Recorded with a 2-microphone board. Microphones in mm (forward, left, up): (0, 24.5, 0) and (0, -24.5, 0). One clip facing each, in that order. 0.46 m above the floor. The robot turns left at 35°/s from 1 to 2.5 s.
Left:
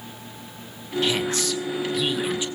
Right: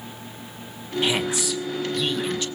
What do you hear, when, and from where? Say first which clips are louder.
1.0 s a woman speaking: even; 150° right, 1.7 m; by 2.5 s 155° left, 1.7 m